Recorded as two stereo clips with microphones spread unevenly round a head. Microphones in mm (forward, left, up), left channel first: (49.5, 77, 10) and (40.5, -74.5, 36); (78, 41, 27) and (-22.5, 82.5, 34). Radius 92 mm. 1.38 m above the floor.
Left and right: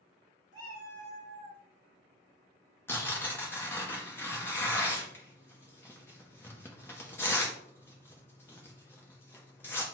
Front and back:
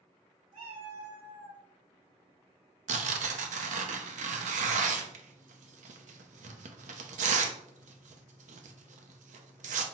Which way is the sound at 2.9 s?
165° left.